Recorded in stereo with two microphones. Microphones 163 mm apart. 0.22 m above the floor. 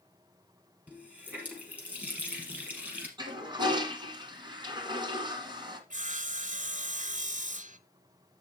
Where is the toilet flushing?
30° right (ahead or behind), 1.8 m.